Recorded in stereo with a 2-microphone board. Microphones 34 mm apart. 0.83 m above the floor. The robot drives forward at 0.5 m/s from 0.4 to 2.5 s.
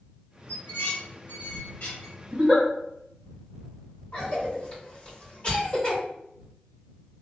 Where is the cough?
35° left (ahead or behind), 1.9 m.